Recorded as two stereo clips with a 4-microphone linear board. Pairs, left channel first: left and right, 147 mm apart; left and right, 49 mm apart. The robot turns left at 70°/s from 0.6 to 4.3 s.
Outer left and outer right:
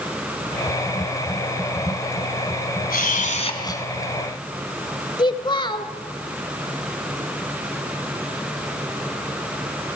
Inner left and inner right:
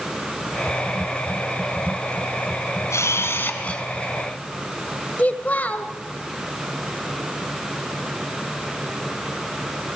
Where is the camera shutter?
85° left, 1.7 m; by 3.8 s 15° left, 1.7 m.